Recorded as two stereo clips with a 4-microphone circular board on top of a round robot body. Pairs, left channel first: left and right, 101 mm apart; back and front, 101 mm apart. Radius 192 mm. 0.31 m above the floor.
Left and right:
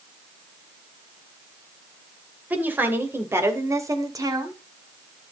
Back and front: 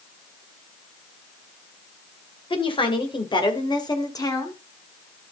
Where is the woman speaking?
160° right, 3 m; by 4.5 s 130° right, 2.5 m.